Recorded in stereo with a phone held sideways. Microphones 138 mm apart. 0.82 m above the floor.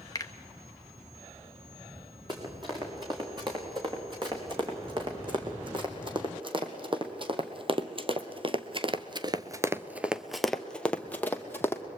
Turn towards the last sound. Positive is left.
turn(degrees=15)  # may be behind; listen again after turning